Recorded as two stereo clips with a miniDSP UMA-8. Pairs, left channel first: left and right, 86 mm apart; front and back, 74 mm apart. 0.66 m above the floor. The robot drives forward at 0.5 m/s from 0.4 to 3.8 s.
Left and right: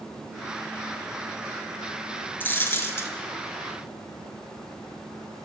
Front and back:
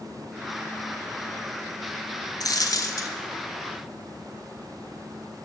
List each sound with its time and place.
2.4 s a dropped coin: 25° left, 1.3 m; by 3.1 s 35° left, 1.0 m